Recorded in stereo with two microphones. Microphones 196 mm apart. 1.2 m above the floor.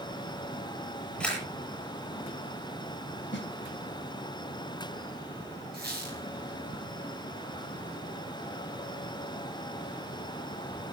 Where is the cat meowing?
I don't hear a cat meowing.